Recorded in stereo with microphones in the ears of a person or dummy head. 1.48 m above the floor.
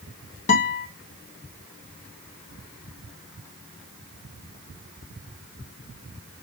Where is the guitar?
40° left (ahead or behind), 1.6 m.